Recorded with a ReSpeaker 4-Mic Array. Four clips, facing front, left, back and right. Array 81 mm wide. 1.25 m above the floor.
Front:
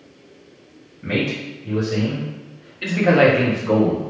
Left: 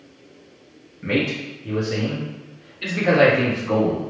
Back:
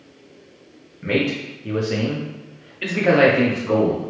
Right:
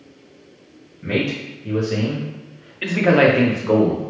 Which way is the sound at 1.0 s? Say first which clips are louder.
Even, back 2 dB; 170° left.